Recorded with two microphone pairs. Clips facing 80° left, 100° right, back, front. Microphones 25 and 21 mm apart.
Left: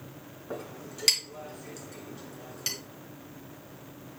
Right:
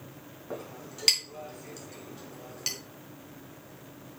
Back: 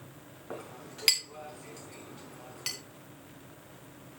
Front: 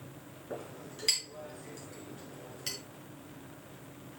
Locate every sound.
0.5 s a clink: straight behind, 3.5 m